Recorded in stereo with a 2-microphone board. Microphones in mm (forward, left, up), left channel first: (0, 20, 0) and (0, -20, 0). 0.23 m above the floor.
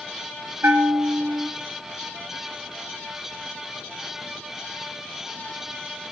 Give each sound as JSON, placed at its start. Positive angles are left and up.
{"t": 0.6, "sound": "a bell", "side_deg": -60, "distance_m": 0.8}